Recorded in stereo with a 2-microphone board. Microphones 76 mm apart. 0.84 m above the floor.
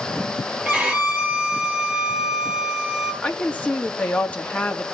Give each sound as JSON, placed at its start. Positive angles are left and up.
{"t": 0.7, "sound": "a violin", "side_deg": -10, "distance_m": 7.0}
{"t": 3.2, "sound": "a woman speaking", "side_deg": 20, "distance_m": 1.6}